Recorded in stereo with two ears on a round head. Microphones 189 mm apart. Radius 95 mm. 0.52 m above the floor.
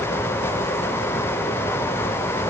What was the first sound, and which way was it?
Only background noise.